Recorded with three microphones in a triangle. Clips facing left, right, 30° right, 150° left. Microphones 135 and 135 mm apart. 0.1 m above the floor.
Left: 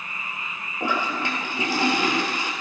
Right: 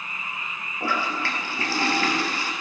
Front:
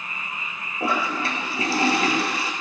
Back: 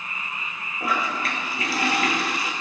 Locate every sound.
0.8 s a toilet flushing: 20° left, 1.0 m